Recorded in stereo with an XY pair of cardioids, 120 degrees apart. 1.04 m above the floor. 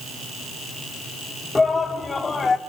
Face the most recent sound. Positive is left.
turn(degrees=30)